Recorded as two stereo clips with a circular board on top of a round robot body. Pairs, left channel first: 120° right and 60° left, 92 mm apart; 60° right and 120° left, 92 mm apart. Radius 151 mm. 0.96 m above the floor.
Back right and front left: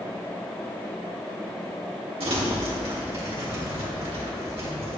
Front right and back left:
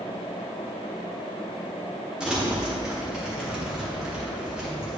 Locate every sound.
2.2 s crumpling: 40° left, 1.9 m